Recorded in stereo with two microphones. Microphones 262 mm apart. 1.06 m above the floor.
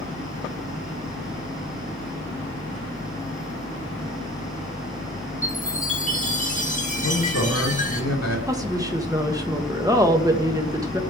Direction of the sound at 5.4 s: 30° left (ahead or behind).